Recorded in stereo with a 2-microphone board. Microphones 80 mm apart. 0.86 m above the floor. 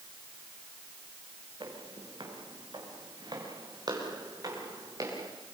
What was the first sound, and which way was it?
Footsteps, 80° right.